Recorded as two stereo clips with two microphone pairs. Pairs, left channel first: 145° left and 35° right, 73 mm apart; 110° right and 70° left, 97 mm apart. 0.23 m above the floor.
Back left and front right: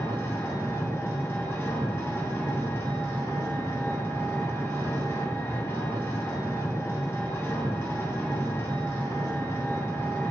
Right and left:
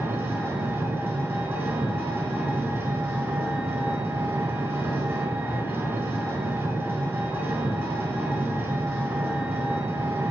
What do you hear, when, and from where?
0.0 s an engine running: 120° left, 0.8 m